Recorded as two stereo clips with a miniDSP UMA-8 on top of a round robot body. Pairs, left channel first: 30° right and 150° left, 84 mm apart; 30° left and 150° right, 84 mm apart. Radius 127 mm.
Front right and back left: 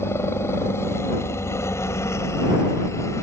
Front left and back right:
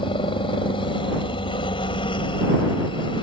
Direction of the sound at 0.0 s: 30° left.